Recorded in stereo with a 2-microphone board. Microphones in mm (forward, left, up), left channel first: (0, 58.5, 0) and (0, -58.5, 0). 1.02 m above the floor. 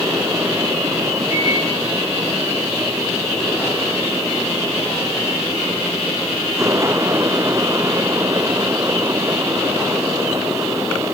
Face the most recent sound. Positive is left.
turn(degrees=65)  # may be behind; listen again after turning